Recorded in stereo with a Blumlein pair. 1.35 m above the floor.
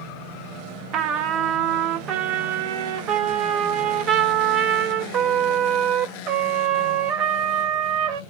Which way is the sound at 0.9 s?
30° right.